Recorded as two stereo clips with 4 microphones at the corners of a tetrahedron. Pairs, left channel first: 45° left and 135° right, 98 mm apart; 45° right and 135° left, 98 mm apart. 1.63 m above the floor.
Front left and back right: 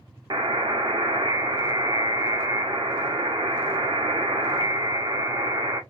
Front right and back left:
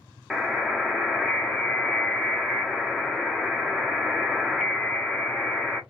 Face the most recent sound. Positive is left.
turn(degrees=-135)